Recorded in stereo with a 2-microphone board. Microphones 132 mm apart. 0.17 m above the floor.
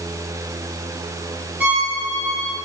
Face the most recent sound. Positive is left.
turn(degrees=-10)  # may be behind; listen again after turning